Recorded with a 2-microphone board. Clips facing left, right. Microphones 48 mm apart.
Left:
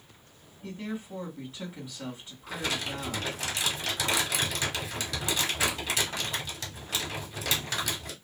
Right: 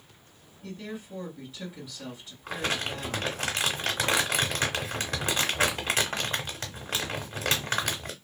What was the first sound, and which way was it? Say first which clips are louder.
A woman speaking: left 2 dB; 25° left (ahead or behind).